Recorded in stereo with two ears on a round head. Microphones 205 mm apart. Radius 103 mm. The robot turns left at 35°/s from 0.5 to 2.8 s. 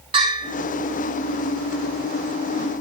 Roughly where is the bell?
Right.